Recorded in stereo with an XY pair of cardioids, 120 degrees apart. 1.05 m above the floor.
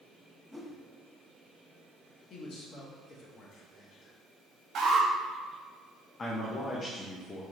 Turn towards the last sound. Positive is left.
turn(degrees=35)